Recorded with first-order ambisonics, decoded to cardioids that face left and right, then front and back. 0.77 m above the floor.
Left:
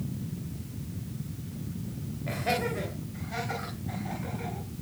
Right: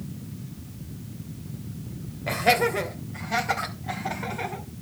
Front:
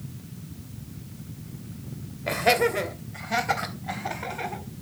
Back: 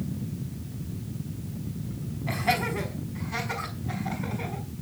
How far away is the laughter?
About 3 m.